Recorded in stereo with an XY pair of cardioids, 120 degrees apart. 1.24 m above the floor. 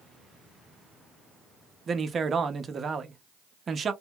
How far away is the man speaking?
About 0.6 m.